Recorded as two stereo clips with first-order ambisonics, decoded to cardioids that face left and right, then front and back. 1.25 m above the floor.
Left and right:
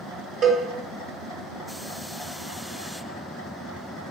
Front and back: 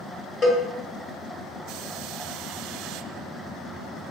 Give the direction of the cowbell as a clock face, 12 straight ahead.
2 o'clock.